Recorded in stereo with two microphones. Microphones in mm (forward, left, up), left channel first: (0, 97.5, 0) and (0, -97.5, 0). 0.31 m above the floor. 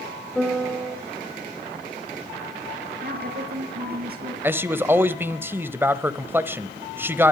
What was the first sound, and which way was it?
A piano, centre (ahead or behind).